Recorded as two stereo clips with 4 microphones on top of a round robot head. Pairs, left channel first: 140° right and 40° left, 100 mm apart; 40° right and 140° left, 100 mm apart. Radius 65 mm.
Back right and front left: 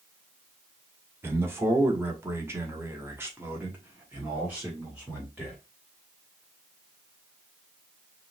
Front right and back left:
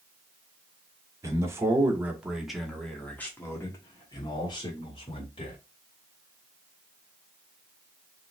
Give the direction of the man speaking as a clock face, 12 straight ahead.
9 o'clock.